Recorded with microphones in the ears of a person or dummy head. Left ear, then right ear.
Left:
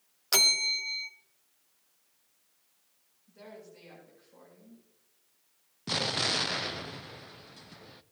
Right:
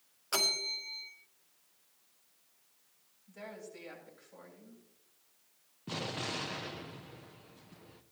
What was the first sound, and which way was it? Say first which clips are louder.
A bell: left 7 dB; 30° left (ahead or behind).